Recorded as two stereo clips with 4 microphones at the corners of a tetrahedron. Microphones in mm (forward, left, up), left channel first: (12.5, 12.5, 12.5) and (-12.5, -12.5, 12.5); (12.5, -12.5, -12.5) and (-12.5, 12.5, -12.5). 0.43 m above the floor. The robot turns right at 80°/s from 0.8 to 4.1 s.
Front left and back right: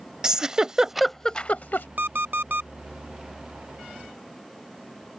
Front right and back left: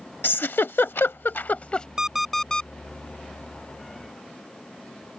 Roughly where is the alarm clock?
Behind.